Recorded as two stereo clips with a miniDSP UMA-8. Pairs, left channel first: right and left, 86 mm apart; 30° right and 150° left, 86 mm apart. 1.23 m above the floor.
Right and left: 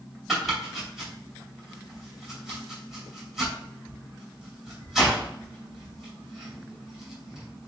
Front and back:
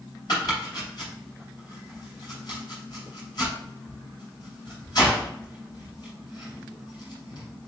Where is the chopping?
5° left, 2.5 m.